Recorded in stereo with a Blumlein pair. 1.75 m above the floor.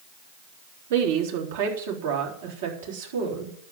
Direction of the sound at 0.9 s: 55° right.